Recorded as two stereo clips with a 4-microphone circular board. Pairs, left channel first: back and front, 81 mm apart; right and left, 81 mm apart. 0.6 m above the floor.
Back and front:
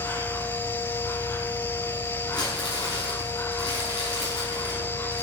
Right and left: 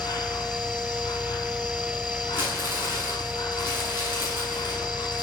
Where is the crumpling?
155° left, 7.5 m.